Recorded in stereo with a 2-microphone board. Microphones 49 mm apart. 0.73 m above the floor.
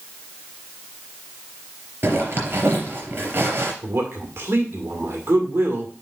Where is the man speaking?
55° right (ahead or behind), 2.0 m.